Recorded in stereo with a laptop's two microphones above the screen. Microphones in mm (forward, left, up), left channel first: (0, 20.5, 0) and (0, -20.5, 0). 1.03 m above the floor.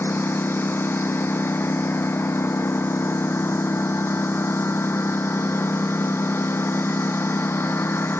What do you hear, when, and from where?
0.0 s a lawn mower: 70° left (ahead or behind); by 8.2 s 75° left (ahead or behind)